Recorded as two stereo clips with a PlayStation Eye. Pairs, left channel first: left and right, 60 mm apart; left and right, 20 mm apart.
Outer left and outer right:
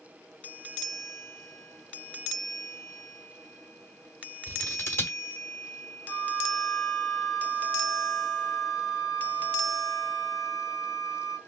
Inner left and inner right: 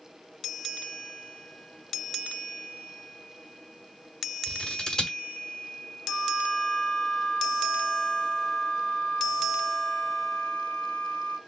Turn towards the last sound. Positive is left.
turn(degrees=80)